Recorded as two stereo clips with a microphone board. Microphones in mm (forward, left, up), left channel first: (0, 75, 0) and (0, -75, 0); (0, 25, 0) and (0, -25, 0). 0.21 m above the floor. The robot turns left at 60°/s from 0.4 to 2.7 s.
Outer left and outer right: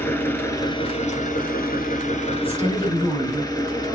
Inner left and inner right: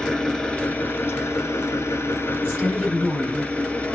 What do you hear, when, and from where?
0.0 s an engine running: 165° left, 0.9 m; by 4.0 s 25° left, 0.9 m
2.4 s a woman speaking: 15° right (ahead or behind), 1.9 m; by 3.9 s 25° right (ahead or behind), 1.9 m